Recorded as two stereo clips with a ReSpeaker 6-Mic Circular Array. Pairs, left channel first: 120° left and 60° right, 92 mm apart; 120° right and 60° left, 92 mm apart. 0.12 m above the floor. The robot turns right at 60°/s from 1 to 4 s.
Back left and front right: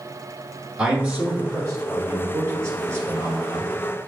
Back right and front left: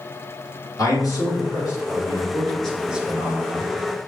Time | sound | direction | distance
0.8 | a man speaking | 130° right | 1.7 m